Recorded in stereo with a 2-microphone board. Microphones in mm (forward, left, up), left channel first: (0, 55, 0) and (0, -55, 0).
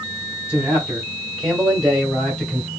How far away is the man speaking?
About 1.4 m.